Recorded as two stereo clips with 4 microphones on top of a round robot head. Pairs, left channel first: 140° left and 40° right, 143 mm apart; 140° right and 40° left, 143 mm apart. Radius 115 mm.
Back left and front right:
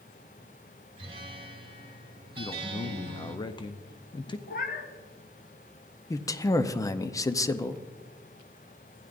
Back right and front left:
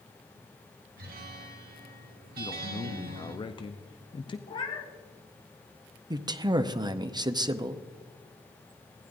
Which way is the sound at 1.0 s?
20° left.